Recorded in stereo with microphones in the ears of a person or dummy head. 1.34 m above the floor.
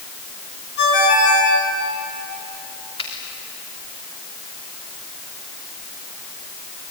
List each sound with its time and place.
0.8 s a ringtone: 60° left (ahead or behind), 8 m
3.0 s a finger snap: 30° left (ahead or behind), 3 m